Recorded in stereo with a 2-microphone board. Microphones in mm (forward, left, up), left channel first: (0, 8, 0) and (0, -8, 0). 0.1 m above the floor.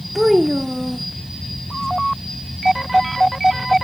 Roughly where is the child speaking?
Centre.